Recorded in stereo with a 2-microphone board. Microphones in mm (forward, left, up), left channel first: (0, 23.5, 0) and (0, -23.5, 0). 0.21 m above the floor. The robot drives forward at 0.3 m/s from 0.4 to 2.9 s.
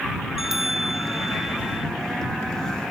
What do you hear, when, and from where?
0.4 s a bell: 5° right (ahead or behind)